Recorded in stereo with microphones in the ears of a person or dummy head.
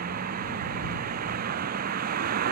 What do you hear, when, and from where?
0.0 s a vehicle: 55° right (ahead or behind)